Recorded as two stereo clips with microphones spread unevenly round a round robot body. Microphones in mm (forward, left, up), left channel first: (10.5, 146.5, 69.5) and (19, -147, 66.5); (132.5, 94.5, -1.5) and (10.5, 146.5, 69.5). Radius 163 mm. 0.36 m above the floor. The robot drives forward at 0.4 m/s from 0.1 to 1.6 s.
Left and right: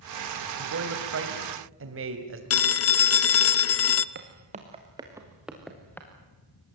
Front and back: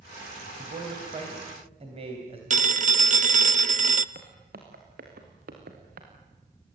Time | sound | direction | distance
0.6 | a man speaking | 120° right | 3 m
2.5 | a phone ringing | 110° left | 0.8 m
4.2 | footsteps | 150° right | 2.5 m